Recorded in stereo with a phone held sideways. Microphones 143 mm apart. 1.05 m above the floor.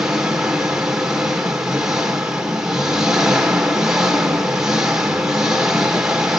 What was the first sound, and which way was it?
An engine running, 5° right (ahead or behind).